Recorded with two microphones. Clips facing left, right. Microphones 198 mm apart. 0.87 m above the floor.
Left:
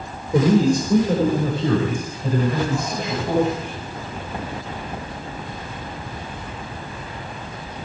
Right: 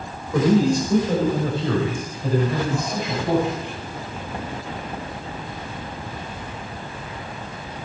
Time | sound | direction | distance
0.3 | a man speaking | 20° left (ahead or behind) | 4 m